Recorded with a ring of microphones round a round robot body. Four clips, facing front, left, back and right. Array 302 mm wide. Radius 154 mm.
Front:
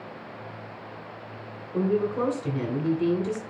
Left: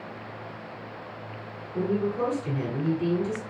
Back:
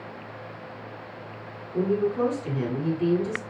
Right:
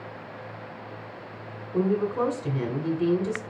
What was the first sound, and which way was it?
A woman speaking, 70° right.